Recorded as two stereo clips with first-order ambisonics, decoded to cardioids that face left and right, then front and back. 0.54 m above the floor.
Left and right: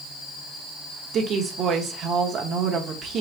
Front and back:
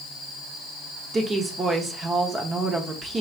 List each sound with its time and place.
1.1 s a woman speaking: 120° right, 0.9 m